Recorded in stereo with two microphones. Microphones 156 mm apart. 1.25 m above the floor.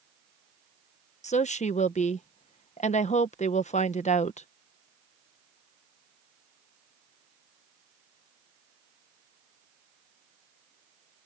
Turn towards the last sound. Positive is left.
turn(degrees=50)  # may be behind; listen again after turning